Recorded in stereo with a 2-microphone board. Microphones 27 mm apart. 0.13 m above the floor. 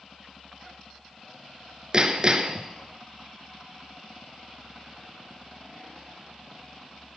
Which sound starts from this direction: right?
Hammering, at 1.9 s.